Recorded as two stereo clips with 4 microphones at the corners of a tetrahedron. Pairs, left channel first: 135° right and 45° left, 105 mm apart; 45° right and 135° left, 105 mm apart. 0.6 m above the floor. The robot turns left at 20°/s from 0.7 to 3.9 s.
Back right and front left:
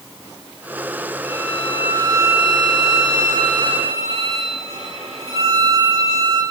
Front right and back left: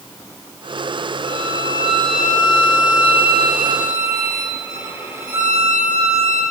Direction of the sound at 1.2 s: 120° left.